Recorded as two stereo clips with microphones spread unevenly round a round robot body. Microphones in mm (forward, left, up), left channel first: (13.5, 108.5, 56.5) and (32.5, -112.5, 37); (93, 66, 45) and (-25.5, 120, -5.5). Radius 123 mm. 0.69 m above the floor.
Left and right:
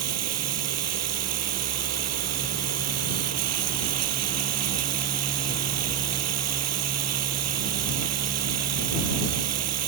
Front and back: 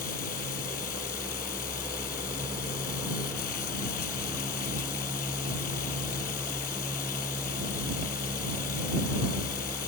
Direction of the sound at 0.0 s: 75° right.